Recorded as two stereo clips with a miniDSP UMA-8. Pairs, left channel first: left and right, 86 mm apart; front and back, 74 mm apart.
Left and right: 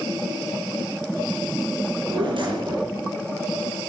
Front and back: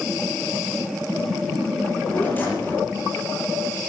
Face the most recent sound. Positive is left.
turn(degrees=-65)